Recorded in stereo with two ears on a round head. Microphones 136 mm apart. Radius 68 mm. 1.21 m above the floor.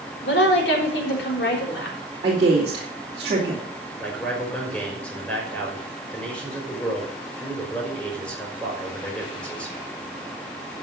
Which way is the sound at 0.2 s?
80° left.